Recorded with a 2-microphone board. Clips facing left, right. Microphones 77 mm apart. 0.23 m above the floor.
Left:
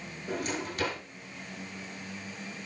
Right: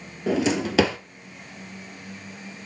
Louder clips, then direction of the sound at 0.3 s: Right 11 dB; 85° right.